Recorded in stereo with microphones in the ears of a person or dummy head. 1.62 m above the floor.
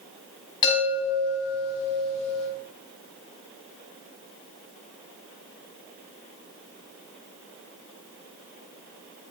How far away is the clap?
No clap in this recording.